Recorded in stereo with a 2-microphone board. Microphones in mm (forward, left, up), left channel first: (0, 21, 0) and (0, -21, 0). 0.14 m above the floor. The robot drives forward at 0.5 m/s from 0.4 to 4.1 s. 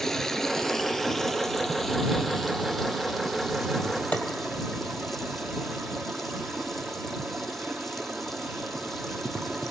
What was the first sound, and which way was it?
Running water, 10° left (ahead or behind).